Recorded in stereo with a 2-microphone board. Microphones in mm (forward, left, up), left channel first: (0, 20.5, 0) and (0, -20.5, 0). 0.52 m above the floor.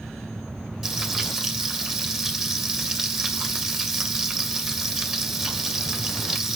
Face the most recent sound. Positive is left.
turn(degrees=-10)  # may be behind; listen again after turning